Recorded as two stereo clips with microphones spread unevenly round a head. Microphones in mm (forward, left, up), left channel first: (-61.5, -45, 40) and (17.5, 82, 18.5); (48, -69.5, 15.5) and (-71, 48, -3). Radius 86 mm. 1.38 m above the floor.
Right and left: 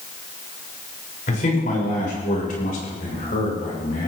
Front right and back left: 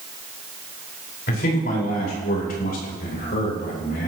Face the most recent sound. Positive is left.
turn(degrees=-80)